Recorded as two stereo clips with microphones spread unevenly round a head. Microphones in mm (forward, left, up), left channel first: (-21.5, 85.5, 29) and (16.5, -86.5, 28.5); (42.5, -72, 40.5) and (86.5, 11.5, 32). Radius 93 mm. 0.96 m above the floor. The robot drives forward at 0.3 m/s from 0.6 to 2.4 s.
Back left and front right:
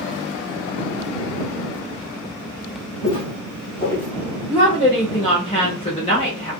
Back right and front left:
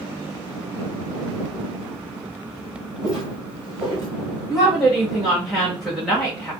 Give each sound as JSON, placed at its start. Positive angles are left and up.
{"t": 3.0, "sound": "footsteps", "azimuth_deg": 150, "distance_m": 1.2}
{"t": 4.5, "sound": "a woman speaking", "azimuth_deg": 145, "distance_m": 1.1}